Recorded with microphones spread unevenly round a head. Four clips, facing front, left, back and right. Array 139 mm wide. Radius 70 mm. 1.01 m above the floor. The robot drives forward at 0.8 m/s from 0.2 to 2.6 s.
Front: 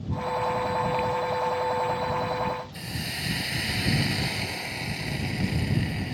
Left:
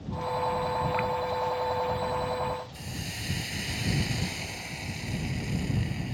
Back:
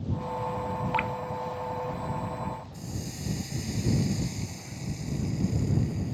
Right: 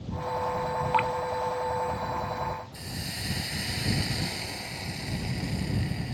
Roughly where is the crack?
I don't hear a crack.